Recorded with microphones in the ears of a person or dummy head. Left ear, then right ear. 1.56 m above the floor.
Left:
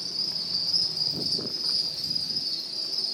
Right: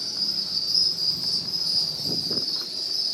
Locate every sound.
0.0 s an insect: 55° left (ahead or behind), 0.7 m